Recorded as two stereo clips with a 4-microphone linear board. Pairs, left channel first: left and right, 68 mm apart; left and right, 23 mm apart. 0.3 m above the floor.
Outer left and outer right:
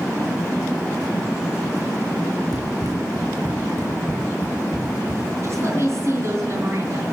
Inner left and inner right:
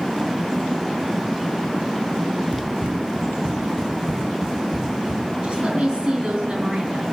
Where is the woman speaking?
45° right (ahead or behind), 2.5 m.